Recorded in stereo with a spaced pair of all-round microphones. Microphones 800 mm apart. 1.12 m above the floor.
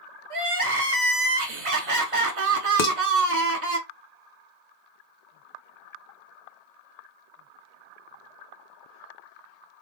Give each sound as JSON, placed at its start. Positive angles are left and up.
{"t": 0.3, "sound": "crying", "side_deg": -45, "distance_m": 0.7}
{"t": 2.8, "sound": "dishes clattering", "side_deg": 75, "distance_m": 0.7}